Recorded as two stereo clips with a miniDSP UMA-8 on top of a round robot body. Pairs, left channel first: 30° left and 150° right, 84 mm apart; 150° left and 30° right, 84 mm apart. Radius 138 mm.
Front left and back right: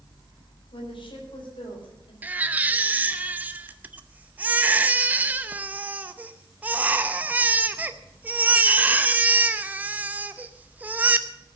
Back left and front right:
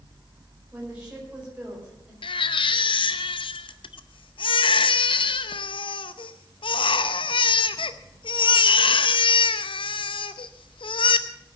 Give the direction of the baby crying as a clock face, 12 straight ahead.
7 o'clock.